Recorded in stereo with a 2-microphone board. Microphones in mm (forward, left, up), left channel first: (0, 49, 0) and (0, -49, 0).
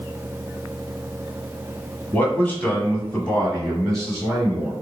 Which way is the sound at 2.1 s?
20° left (ahead or behind).